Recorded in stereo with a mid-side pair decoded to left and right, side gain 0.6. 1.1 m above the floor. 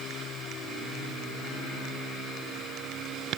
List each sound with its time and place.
Only background noise.